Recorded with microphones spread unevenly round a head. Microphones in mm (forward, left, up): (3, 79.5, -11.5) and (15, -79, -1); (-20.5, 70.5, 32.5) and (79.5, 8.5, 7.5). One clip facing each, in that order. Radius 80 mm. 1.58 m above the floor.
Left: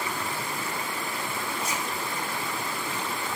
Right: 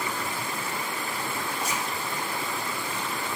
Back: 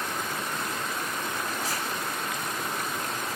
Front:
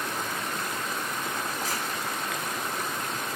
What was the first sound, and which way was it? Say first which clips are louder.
A zipper: right 1 dB, even; 65° right.